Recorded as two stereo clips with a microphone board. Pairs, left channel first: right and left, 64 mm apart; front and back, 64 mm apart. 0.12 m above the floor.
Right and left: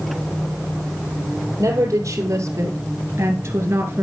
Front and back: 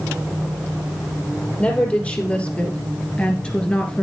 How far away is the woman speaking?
About 3 m.